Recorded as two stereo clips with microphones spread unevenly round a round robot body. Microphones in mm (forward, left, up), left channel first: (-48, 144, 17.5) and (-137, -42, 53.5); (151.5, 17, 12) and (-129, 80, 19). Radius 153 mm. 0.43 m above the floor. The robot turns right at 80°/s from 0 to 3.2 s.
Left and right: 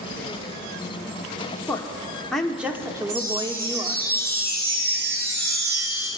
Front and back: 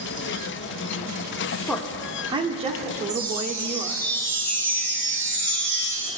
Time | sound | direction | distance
1.7 | a woman speaking | 65° left | 0.7 m
3.1 | a chime | 105° right | 2 m